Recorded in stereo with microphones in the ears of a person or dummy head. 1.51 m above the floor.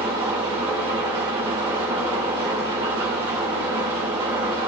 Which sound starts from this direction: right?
An engine running, at 0.0 s.